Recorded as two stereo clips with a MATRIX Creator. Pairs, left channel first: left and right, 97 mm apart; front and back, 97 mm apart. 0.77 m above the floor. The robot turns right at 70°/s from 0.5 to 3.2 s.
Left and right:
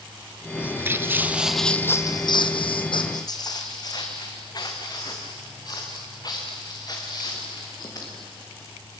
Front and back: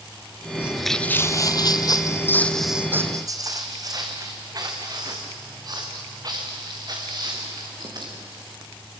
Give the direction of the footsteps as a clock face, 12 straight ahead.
5 o'clock.